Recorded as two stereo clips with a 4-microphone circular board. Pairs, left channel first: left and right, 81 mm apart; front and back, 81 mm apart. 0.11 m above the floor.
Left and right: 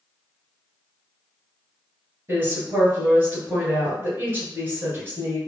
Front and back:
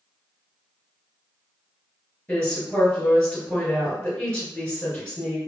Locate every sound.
2.3 s a woman speaking: 60° right, 1.9 m